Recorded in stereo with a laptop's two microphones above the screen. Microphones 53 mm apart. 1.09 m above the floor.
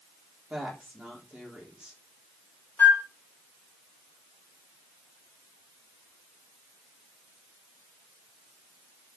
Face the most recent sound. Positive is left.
turn(degrees=35)  # may be behind; listen again after turning